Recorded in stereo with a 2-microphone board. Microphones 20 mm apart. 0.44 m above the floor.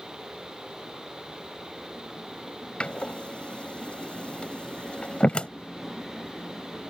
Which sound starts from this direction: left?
A door slam, at 2.8 s.